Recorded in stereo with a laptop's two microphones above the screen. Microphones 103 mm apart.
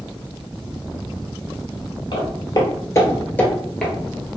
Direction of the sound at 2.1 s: 50° left (ahead or behind).